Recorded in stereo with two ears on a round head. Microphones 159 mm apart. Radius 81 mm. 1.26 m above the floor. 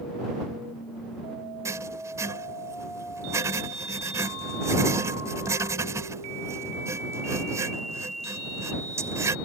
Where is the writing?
15° right (ahead or behind).